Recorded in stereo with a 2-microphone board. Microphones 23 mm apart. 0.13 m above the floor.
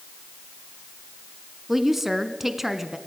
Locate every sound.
1.7 s a woman speaking: 10° right (ahead or behind), 1.1 m